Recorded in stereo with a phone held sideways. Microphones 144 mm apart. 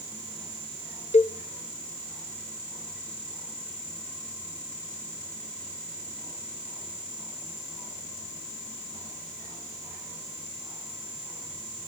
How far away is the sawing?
No sawing in this recording.